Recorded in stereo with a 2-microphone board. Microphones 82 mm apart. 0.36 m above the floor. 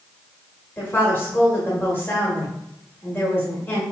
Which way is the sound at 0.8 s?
25° left (ahead or behind).